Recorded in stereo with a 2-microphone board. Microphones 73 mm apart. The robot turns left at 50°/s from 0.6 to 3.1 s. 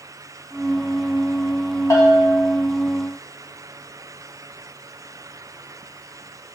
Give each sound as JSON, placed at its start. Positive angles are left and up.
{"t": 1.9, "sound": "a bell", "azimuth_deg": 80, "distance_m": 0.7}